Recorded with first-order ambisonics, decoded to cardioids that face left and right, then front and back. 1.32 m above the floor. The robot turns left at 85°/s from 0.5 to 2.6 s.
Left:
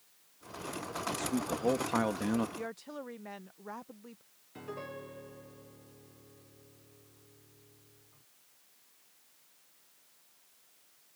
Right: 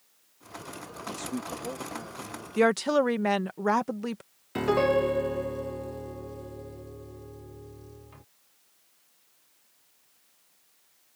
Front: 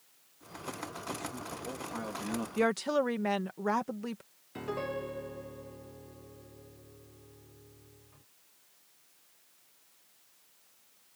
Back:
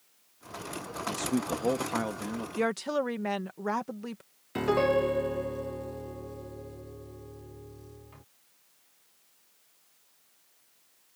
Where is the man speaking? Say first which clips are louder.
Left 1 dB, back 11 dB; 155° right; by 2.5 s 85° left.